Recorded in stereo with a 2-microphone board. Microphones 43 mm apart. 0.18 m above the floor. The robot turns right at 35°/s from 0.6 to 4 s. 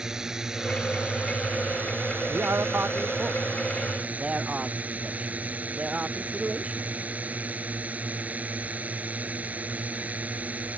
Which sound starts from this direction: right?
A man speaking, at 2.3 s.